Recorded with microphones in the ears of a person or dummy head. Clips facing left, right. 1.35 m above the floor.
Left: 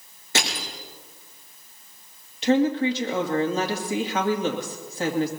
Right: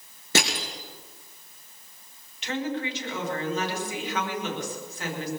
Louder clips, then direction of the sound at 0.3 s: Right 2 dB; 70° right (ahead or behind).